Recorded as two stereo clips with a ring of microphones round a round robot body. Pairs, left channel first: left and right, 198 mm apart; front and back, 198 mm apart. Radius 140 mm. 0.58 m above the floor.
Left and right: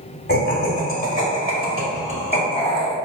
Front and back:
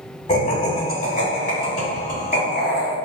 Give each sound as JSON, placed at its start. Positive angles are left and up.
{"t": 0.3, "sound": "laughter", "azimuth_deg": 55, "distance_m": 1.6}